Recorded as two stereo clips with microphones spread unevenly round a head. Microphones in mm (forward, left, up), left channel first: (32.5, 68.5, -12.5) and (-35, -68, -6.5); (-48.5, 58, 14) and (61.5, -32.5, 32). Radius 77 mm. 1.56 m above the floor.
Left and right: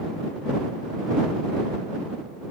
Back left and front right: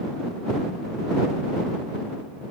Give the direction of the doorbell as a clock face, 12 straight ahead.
No doorbell in this recording.